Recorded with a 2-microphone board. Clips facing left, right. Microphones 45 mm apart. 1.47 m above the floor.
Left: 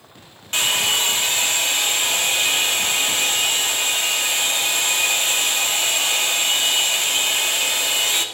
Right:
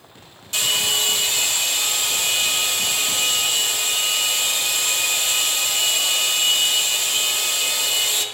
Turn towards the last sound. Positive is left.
turn(degrees=45)  # may be behind; listen again after turning